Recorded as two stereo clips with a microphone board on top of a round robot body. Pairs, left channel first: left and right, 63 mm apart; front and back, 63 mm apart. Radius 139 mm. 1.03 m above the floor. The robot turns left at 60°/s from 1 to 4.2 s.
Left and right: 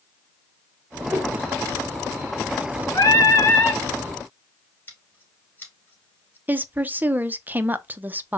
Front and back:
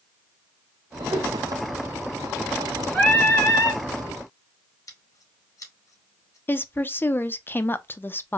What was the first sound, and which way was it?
A whoosh, 155° right.